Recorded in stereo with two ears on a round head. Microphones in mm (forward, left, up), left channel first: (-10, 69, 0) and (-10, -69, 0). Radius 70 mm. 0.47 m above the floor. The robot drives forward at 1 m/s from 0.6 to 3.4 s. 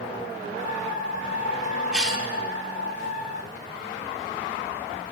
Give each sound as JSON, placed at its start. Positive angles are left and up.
{"t": 1.9, "sound": "a cough", "side_deg": -5, "distance_m": 1.0}